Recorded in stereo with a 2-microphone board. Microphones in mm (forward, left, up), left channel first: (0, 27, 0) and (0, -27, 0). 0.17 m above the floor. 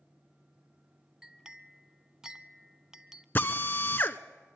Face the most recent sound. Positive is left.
turn(degrees=40)  # may be behind; listen again after turning